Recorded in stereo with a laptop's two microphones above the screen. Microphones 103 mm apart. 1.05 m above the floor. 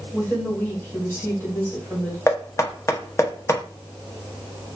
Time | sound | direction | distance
0.1 | a woman speaking | 20° left (ahead or behind) | 1.2 m
2.3 | knocking | 25° left (ahead or behind) | 0.7 m